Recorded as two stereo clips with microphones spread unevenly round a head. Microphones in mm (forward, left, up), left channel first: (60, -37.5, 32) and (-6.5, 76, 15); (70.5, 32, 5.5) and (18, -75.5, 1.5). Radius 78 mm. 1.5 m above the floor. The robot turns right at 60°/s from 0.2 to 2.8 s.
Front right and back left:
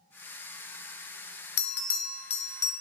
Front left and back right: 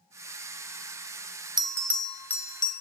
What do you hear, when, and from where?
1.6 s a bell: 55° right, 0.5 m; by 2.7 s 10° left, 0.5 m